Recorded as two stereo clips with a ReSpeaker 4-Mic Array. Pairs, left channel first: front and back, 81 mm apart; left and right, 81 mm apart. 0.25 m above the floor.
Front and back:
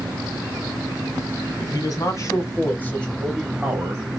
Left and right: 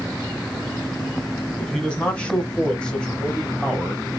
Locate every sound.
1.6 s a man speaking: 15° left, 2.0 m; by 4.2 s 175° left, 1.4 m